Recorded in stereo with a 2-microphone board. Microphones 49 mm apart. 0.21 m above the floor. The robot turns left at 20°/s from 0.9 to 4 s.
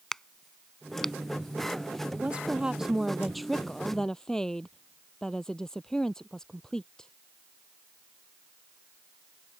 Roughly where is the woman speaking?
Behind right.